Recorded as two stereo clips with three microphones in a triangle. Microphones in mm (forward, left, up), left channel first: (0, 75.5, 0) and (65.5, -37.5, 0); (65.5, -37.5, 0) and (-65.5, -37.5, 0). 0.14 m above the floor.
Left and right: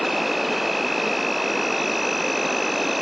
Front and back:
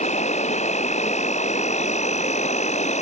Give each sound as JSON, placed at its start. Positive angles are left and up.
{"t": 0.0, "sound": "an insect", "azimuth_deg": 30}